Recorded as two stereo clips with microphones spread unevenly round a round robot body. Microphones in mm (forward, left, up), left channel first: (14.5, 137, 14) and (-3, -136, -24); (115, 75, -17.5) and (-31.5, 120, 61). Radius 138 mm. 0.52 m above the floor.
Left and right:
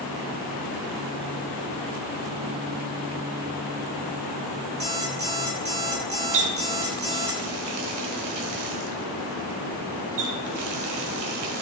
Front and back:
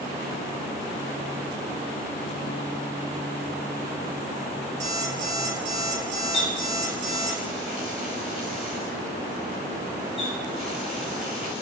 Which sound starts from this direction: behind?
An alarm clock, at 4.8 s.